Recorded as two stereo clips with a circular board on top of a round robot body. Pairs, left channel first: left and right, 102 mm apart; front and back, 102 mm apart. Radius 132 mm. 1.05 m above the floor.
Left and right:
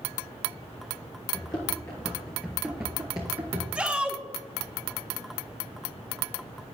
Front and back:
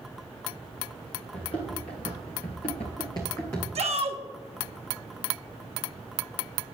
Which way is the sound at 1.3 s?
40° left.